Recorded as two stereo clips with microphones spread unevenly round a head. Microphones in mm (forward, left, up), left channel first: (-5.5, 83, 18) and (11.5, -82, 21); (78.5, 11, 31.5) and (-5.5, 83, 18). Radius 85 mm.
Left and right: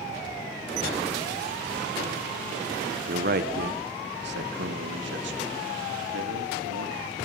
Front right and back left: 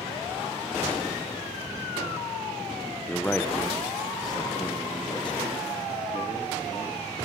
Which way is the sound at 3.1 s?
130° right.